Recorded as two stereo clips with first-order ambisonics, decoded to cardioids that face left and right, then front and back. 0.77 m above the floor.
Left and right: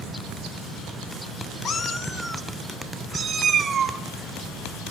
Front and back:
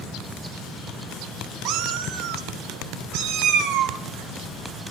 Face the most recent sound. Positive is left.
turn(degrees=-155)